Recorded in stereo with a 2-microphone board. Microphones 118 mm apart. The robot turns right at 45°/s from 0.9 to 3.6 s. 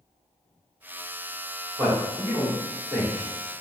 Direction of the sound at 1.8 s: 15° right (ahead or behind).